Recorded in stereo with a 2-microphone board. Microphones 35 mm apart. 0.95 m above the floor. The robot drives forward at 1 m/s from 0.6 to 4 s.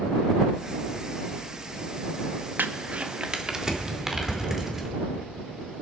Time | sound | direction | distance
2.6 | crumpling | 70° right (ahead or behind) | 0.6 m